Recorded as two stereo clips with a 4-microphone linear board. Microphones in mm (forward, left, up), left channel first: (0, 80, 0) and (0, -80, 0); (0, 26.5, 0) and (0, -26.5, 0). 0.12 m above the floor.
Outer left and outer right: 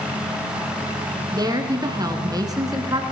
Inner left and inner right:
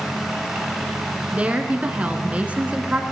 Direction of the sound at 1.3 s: 25° right (ahead or behind).